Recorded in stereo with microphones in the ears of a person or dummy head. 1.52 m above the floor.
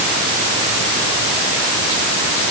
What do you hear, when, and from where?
Only background noise.